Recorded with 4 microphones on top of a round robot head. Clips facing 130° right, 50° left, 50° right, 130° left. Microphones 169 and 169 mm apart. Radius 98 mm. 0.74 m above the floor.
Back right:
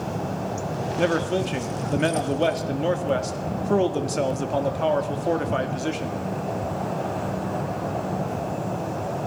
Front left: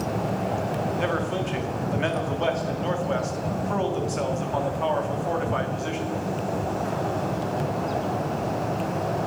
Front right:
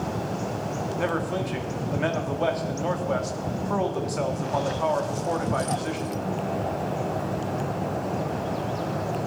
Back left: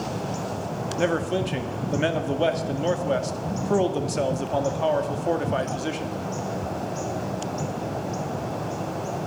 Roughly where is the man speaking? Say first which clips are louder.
Back right 4 dB, back left 5 dB; behind.